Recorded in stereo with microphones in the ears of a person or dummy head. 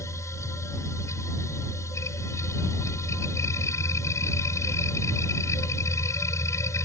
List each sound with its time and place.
0.0 s a machine running: 20° left (ahead or behind)